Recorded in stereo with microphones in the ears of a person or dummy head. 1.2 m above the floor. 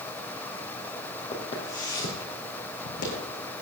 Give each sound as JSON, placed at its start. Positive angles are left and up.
{"t": 1.3, "sound": "footsteps", "side_deg": 35, "distance_m": 2.5}